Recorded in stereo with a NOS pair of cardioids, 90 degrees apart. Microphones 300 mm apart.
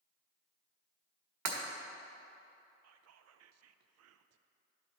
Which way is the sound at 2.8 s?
60° right.